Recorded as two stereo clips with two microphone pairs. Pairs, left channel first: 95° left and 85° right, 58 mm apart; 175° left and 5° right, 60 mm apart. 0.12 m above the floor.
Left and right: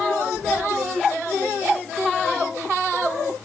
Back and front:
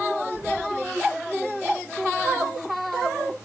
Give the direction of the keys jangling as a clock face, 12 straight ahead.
11 o'clock.